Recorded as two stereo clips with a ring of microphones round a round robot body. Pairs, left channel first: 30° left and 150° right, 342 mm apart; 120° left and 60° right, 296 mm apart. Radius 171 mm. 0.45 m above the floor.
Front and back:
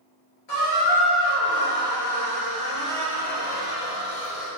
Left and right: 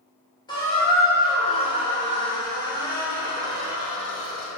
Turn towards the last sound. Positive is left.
turn(degrees=45)